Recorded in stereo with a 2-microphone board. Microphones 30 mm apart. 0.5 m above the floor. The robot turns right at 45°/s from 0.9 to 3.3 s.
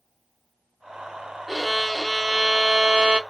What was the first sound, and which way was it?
A violin, 170° right.